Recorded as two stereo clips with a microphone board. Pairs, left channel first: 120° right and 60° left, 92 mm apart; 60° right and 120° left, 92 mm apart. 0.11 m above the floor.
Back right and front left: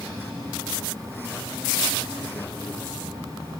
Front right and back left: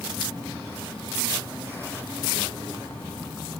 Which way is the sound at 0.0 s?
10° left.